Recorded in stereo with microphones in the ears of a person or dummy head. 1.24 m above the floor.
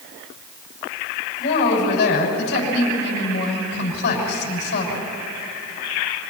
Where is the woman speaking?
55° left (ahead or behind), 6.5 m.